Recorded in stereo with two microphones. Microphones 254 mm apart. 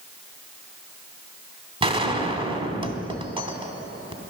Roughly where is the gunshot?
Right.